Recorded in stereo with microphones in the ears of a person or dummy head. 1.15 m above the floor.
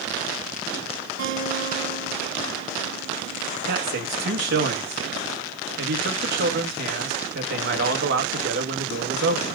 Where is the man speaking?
55° right (ahead or behind), 1.7 m.